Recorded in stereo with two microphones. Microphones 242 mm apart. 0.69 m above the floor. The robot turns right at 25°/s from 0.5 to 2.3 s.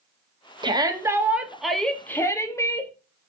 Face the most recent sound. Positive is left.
turn(degrees=15)